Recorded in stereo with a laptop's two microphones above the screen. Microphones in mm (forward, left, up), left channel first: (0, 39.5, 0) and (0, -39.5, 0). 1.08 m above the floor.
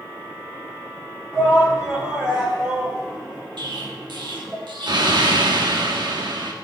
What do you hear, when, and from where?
1.3 s a shout: 15° right (ahead or behind), 3 m
3.6 s an explosion: 70° right (ahead or behind), 1.3 m